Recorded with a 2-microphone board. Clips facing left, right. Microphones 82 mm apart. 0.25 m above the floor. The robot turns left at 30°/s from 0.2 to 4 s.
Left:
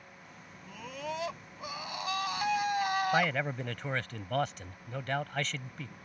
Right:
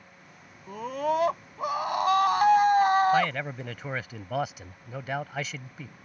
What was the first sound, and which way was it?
A scream, 55° right.